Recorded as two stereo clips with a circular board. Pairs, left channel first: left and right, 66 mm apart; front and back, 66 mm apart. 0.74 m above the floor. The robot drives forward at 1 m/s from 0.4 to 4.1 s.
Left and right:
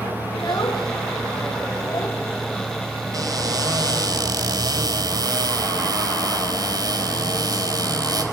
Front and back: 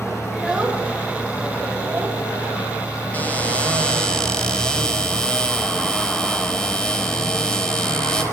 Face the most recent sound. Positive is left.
turn(degrees=-80)